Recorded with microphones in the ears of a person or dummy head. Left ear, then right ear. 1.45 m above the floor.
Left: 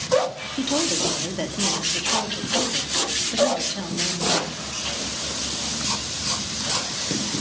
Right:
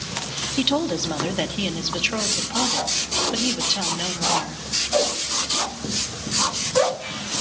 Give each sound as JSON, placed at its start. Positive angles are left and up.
{"t": 0.6, "sound": "a woman speaking", "side_deg": -40, "distance_m": 2.5}